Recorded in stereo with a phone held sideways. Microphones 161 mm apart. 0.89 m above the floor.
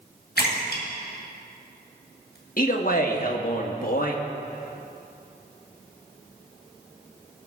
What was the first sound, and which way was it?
A splash, 70° left (ahead or behind).